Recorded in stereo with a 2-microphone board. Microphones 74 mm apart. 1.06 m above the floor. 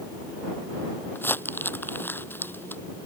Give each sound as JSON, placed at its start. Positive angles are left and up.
{"t": 1.1, "sound": "crumpling", "side_deg": 30}